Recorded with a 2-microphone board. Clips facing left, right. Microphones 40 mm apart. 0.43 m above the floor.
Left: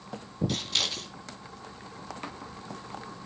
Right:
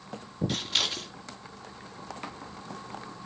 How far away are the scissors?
About 3 m.